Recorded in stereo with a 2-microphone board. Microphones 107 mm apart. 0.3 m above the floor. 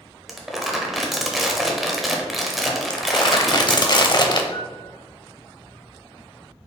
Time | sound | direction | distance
0.3 | crumpling | centre (ahead or behind) | 0.7 m
2.9 | crumpling | 45° left (ahead or behind) | 0.6 m
4.5 | a piano | 45° left (ahead or behind) | 1.0 m